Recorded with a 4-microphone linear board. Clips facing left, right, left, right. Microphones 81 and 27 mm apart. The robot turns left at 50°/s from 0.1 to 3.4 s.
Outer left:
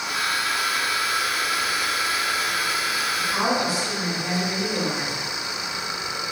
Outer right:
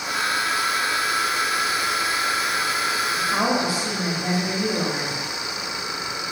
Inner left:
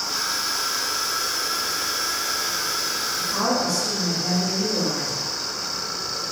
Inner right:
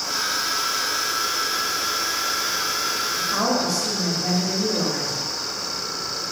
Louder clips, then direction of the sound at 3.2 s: Outer right 1 dB, even; 45° right (ahead or behind).